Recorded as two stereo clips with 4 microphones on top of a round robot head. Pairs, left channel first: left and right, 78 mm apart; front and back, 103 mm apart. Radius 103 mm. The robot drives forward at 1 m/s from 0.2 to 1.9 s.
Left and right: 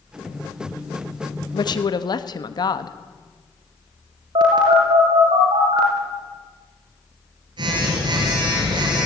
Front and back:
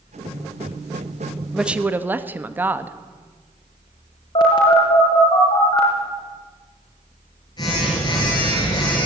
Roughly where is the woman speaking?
Left.